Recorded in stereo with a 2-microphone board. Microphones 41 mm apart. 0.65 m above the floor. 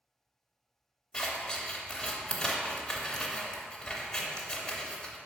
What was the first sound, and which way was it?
Scissors, 15° left (ahead or behind).